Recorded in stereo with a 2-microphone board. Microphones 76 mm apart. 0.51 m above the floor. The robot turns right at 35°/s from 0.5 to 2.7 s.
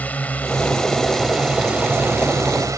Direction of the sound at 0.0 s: 155° left.